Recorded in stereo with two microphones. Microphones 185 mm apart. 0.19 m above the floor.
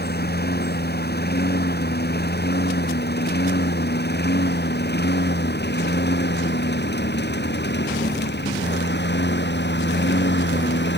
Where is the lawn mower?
60° left (ahead or behind); by 11.0 s 70° left (ahead or behind).